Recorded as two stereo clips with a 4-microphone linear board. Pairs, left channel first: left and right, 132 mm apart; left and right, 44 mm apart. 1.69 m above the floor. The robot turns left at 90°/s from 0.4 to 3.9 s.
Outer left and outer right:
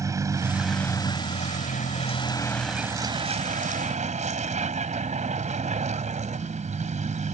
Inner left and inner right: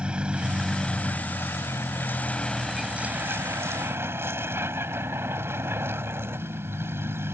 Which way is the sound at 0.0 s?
155° right.